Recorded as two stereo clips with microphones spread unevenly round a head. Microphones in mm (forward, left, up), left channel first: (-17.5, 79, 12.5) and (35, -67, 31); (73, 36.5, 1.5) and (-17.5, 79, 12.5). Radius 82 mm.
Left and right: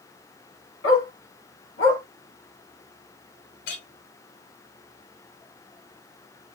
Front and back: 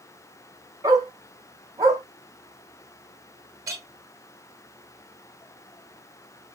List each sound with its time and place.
0.8 s a dog barking: 110° left, 4 m
3.7 s a clink: 115° left, 1.4 m